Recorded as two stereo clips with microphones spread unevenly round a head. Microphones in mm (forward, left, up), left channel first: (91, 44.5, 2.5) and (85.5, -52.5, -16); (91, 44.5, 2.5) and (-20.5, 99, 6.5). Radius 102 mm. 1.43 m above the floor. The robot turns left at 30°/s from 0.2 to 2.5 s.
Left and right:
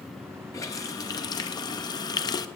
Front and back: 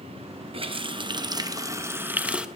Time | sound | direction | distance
0.5 | a running tap | 130° left | 0.9 m